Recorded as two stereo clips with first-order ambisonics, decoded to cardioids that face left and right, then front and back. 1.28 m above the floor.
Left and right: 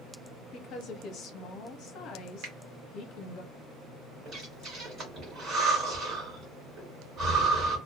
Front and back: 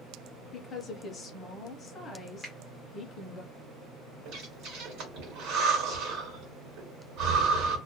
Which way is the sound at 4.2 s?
150° right.